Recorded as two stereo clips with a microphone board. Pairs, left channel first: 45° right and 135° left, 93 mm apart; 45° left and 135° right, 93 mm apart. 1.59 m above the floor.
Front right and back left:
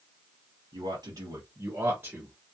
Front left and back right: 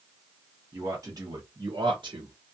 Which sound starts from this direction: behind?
A man speaking, at 0.7 s.